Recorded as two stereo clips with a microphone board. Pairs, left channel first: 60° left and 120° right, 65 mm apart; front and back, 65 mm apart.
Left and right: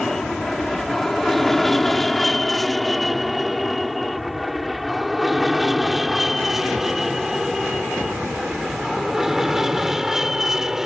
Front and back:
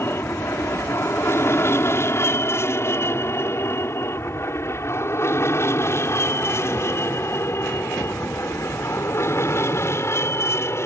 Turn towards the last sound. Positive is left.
turn(degrees=-40)